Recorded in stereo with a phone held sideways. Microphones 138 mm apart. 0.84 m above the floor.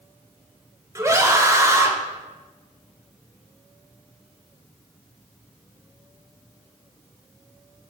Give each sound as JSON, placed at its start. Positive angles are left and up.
{"t": 0.9, "sound": "a scream", "side_deg": -20, "distance_m": 0.8}